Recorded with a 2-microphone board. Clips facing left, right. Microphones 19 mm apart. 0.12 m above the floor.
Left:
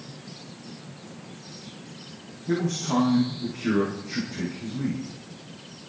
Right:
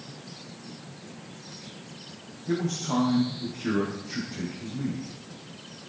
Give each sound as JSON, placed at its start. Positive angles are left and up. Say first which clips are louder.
{"t": 2.5, "sound": "a man speaking", "louder": "left 2 dB", "side_deg": 0, "distance_m": 5.5}